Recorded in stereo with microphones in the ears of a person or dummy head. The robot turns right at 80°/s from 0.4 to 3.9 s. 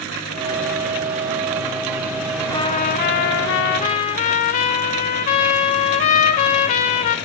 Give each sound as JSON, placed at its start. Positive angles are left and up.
{"t": 2.5, "sound": "a trumpet", "azimuth_deg": 30, "distance_m": 0.6}